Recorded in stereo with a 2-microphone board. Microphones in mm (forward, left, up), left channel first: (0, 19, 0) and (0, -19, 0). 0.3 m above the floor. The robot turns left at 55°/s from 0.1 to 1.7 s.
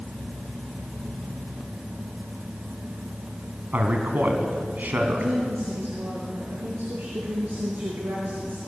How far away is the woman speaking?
About 6.5 m.